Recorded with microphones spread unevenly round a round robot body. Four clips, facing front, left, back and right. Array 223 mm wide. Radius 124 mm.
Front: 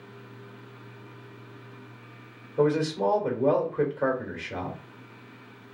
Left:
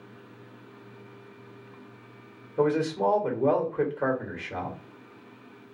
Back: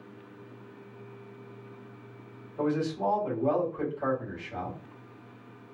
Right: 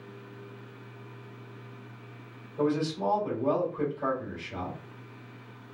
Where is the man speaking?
40° left, 2.5 m.